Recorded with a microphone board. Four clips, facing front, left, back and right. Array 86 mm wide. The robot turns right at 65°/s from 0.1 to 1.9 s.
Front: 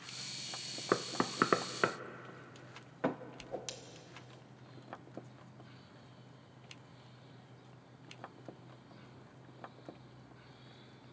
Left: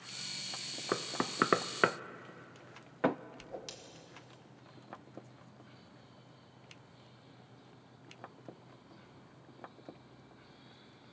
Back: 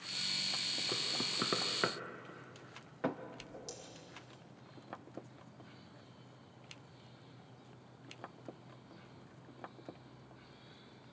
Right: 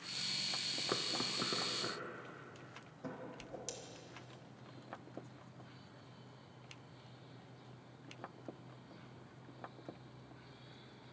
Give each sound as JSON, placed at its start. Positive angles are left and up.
{"t": 0.9, "sound": "knocking", "azimuth_deg": 20, "distance_m": 0.6}
{"t": 3.4, "sound": "a whoosh", "azimuth_deg": 20, "distance_m": 1.7}